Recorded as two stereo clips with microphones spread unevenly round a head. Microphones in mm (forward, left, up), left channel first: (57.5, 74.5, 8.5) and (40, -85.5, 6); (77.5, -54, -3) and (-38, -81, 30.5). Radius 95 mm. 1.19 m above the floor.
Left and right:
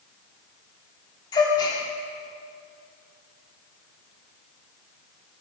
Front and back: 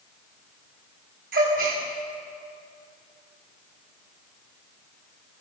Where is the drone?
I don't hear a drone.